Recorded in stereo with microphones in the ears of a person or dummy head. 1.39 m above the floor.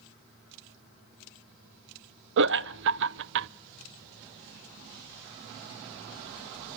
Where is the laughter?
65° right (ahead or behind), 0.5 m.